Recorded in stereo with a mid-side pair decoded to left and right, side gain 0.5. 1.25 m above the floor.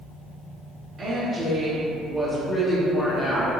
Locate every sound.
1.0 s a woman speaking: 40° right, 1.0 m; by 3.6 s 40° left, 1.2 m